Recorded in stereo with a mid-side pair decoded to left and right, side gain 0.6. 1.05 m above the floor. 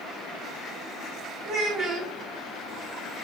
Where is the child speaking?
65° right, 1.3 m.